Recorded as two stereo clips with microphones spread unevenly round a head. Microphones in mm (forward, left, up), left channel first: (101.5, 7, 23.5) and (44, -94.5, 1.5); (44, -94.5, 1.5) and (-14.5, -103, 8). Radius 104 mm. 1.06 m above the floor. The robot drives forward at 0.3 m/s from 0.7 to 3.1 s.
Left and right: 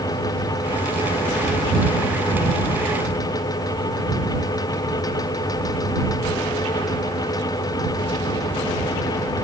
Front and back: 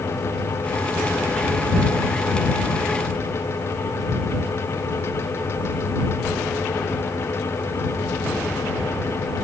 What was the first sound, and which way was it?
Only background noise.